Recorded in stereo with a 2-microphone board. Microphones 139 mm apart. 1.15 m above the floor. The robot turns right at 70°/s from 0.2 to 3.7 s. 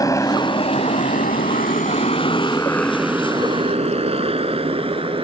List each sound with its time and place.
0.0 s a motorcycle: 25° left (ahead or behind); by 5.2 s 40° right (ahead or behind)